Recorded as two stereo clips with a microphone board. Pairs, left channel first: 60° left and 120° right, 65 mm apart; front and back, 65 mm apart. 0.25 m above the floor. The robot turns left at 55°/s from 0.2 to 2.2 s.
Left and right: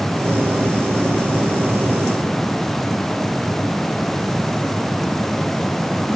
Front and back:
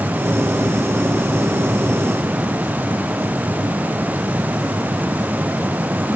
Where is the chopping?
No chopping in this recording.